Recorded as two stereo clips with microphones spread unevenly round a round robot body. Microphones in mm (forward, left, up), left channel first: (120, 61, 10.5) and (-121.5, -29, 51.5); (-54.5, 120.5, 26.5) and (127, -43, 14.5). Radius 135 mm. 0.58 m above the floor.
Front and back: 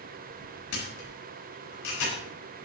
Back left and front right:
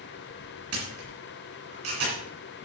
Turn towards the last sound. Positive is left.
turn(degrees=-20)